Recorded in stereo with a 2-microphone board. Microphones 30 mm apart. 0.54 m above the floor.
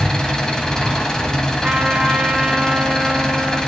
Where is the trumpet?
20° right (ahead or behind), 2.5 m.